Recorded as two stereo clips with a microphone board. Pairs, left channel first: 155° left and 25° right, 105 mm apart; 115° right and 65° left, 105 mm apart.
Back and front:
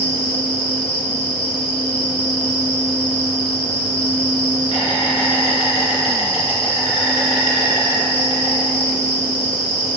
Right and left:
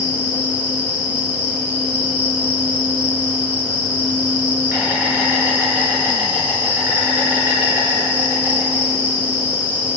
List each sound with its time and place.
0.0 s an insect: 140° left, 2.0 m